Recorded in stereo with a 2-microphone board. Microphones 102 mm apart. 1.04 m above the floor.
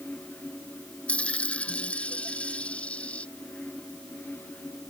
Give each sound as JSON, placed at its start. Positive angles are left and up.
{"t": 1.1, "sound": "a dropped coin", "side_deg": 10}